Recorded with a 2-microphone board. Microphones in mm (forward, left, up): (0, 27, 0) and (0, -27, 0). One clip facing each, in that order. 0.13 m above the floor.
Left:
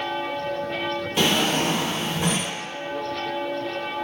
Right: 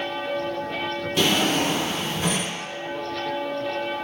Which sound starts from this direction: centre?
A drawer, at 1.2 s.